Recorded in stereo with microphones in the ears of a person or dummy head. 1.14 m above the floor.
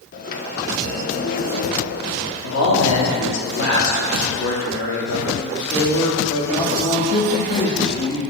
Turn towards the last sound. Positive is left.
turn(degrees=35)  # may be behind; listen again after turning